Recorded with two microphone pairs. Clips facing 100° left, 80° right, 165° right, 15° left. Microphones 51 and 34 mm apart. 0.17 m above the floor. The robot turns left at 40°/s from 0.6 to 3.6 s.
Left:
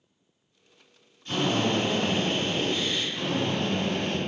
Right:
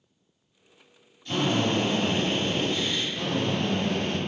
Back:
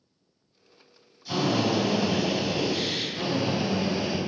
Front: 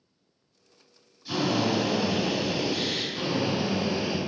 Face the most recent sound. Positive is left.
turn(degrees=10)